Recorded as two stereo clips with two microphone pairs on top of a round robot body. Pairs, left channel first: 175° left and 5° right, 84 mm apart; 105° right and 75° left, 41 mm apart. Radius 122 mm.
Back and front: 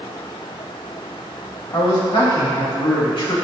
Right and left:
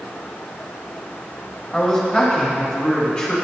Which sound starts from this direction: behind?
A man speaking, at 1.7 s.